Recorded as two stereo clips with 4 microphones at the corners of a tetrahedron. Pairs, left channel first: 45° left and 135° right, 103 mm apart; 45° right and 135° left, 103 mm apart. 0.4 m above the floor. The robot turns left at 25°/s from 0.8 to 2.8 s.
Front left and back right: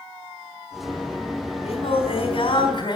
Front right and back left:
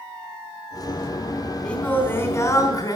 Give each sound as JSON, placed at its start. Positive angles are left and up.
{"t": 1.6, "sound": "singing", "azimuth_deg": 35, "distance_m": 3.5}